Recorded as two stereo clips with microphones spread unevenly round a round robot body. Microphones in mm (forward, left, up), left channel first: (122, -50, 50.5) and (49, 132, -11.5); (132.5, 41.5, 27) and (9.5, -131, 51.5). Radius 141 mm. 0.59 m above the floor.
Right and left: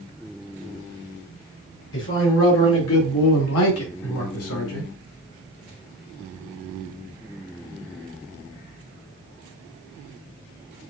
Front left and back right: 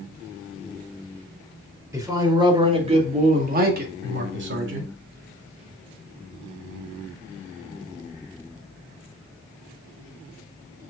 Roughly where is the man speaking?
Ahead right.